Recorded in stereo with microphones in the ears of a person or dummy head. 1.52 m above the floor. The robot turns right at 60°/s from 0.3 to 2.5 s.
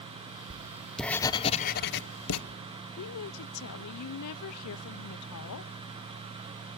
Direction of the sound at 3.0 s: 85° left.